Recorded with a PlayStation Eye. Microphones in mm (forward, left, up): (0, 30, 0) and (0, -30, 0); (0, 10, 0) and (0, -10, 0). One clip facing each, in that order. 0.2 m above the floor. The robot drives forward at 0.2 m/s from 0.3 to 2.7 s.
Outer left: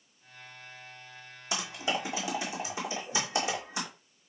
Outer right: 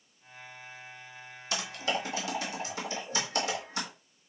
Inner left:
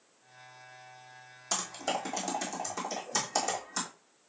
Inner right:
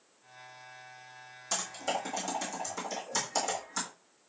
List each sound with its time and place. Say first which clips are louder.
1.5 s typing on a keyboard: even, even; 20° left (ahead or behind), 1.5 m; by 3.9 s 15° left (ahead or behind), 1.7 m